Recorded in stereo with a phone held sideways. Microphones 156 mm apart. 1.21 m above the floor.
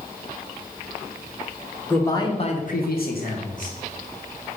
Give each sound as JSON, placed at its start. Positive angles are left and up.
{"t": 1.9, "sound": "a man speaking", "side_deg": 15, "distance_m": 1.4}